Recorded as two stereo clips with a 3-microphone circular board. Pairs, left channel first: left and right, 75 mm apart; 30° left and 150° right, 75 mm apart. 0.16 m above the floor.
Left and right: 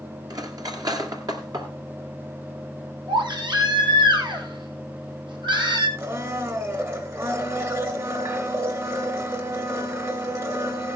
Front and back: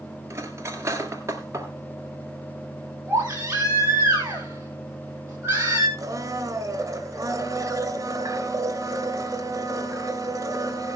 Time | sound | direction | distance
0.3 | cutlery clinking | 105° right | 1.9 m
3.1 | a baby crying | 90° right | 4 m
6.0 | a blender | 120° right | 2.5 m